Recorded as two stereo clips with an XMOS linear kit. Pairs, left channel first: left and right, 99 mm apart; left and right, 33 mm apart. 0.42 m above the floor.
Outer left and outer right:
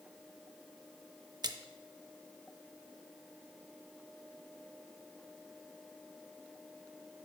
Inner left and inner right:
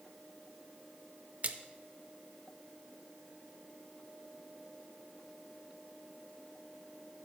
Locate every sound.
1.4 s a splash: 45° right (ahead or behind), 0.5 m